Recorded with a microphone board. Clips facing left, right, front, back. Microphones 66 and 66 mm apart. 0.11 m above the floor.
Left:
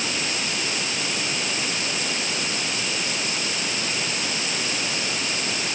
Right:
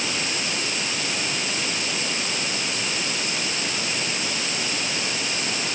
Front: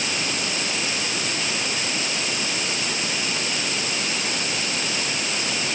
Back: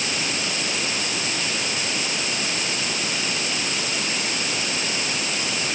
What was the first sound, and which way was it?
Only background noise.